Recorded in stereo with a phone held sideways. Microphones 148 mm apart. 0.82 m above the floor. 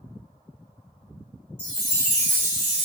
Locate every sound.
1.6 s a chime: 35° left (ahead or behind), 1.4 m